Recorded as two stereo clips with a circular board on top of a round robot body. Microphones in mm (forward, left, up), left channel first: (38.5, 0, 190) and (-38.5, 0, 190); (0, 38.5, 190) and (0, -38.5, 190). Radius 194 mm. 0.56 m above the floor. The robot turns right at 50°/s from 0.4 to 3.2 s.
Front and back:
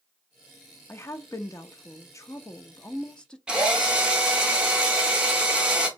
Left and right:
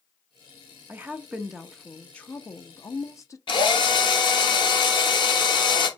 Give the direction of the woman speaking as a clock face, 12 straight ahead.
1 o'clock.